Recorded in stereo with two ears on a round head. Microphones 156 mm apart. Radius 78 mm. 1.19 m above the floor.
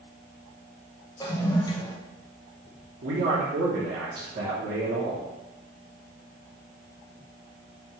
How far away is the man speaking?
About 1.1 m.